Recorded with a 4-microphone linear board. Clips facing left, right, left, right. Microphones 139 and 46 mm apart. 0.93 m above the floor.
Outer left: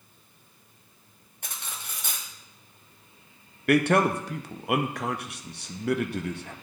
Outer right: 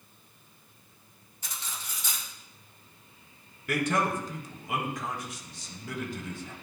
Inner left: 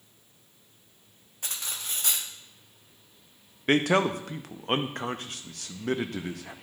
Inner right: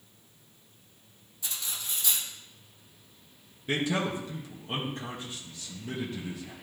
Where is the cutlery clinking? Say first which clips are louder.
Outer left 1 dB, inner left 1 dB; 60° left (ahead or behind), 0.8 m.